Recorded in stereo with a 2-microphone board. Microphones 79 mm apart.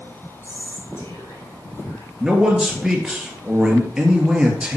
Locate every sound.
0.4 s whispering: 35° left (ahead or behind), 3.5 m
2.2 s a man speaking: 10° right (ahead or behind), 1.8 m